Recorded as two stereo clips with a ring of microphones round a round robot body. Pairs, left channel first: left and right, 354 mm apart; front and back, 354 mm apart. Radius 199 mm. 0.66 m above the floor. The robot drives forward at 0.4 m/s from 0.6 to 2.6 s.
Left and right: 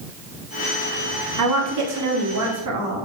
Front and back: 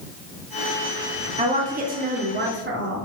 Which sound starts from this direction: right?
A woman speaking, at 1.4 s.